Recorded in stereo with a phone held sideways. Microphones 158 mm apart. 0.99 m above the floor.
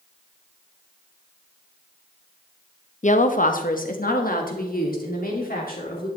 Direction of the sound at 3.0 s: 50° left (ahead or behind).